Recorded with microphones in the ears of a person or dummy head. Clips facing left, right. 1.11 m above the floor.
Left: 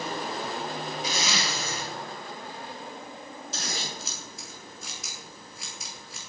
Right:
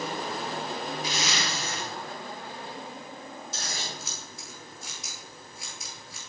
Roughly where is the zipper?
Left.